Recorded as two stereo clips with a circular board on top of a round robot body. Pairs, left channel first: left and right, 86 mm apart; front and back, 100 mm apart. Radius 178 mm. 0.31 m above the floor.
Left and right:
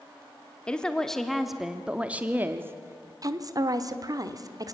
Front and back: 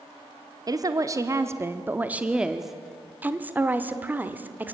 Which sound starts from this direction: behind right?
A woman speaking, at 3.2 s.